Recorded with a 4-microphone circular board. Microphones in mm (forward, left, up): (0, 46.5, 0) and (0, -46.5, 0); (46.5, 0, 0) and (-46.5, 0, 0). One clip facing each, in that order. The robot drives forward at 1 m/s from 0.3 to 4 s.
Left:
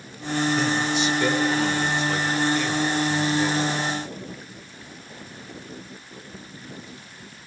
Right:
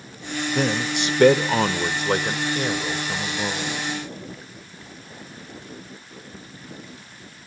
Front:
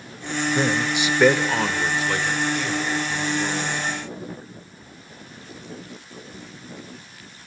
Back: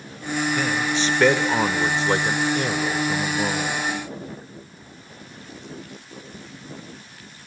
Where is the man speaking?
55° right, 1.6 m; by 3.8 s 155° right, 3 m.